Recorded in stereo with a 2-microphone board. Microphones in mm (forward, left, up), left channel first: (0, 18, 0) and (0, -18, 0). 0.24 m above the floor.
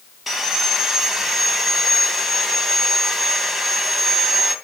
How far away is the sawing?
About 2 m.